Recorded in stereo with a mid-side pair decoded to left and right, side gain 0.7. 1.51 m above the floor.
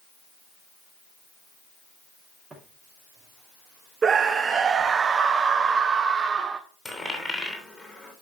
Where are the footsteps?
10° right, 6 m; by 5.0 s 5° right, 4 m.